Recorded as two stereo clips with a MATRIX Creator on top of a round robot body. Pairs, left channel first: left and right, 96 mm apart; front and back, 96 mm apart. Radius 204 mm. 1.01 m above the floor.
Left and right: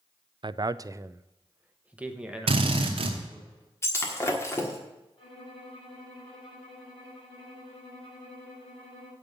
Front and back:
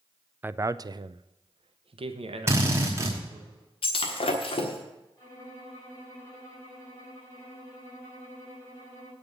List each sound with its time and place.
0.4 s a man speaking: 115° right, 0.5 m; by 3.5 s 175° right, 1.8 m
2.5 s a drill: 115° right, 1.1 m
3.8 s breaking glass: 25° left, 1.3 m
5.2 s a violin: 60° left, 5 m